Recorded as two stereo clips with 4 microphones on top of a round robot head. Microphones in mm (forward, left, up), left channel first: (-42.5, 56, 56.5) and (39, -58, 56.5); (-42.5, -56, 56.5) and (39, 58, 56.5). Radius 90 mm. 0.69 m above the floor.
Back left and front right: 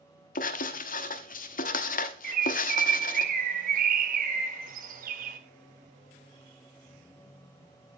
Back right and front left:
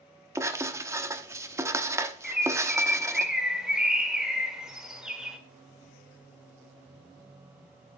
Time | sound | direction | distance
0.3 | writing | 125° left | 1.1 m
2.2 | a bird | 30° right | 1.7 m